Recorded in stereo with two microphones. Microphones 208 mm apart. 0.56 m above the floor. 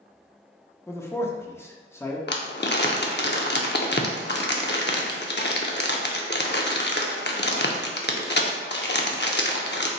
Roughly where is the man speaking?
Centre.